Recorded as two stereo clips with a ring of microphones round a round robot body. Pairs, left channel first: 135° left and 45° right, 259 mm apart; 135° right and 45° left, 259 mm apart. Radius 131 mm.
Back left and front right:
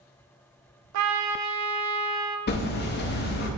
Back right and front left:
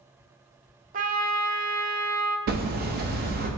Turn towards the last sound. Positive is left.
turn(degrees=90)